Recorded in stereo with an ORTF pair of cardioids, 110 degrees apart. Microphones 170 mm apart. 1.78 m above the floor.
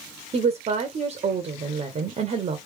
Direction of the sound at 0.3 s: 35° right.